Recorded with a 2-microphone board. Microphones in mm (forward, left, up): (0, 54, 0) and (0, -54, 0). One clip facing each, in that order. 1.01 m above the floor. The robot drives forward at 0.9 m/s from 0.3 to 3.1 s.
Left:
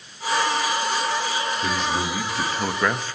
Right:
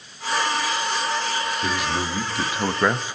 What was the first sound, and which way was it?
A man speaking, 5° right (ahead or behind).